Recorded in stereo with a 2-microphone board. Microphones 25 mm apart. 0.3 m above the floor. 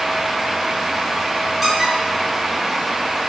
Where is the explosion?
I don't hear an explosion.